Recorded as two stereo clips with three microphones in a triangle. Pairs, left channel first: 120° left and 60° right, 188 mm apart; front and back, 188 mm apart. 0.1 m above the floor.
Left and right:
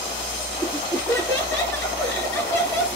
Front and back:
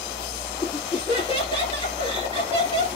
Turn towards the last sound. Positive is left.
turn(degrees=40)